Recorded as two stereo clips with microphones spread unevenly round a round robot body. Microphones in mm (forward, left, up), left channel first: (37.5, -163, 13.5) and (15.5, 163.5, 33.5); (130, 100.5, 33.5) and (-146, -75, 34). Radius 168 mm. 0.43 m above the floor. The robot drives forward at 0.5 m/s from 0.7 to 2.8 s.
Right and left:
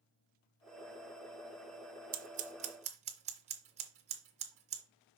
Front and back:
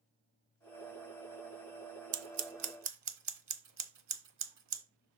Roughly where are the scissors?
Behind.